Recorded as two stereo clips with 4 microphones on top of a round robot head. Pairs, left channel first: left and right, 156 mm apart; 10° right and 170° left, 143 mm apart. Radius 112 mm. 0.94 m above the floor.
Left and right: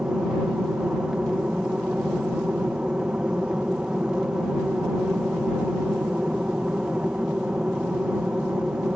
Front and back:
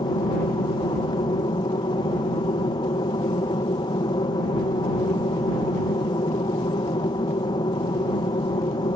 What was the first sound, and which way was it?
An aircraft, 10° right.